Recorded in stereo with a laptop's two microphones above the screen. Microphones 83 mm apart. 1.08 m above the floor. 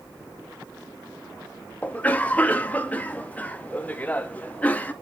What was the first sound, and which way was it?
A cough, 20° left (ahead or behind).